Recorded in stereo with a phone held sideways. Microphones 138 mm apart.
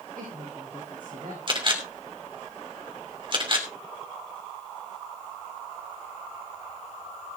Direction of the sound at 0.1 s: 85° right.